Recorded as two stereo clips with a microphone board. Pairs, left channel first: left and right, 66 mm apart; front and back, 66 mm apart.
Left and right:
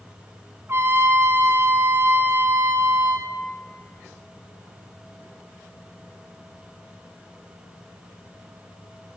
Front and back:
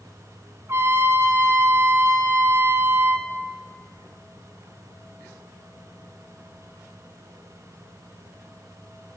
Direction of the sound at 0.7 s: 130° right.